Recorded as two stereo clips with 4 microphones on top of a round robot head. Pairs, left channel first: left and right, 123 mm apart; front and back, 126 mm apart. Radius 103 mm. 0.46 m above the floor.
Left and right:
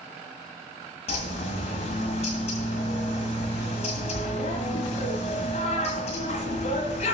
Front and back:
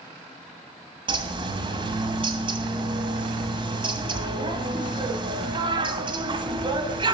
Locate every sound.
1.1 s a bird: 135° left, 1.8 m